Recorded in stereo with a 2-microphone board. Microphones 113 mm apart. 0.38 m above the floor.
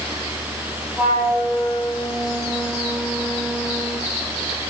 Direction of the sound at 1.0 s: 10° right (ahead or behind).